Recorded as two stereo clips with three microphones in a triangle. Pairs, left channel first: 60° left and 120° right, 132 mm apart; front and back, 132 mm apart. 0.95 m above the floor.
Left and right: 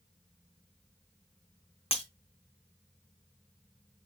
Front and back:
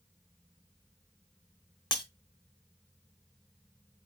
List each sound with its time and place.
1.9 s breaking glass: 40° left, 0.9 m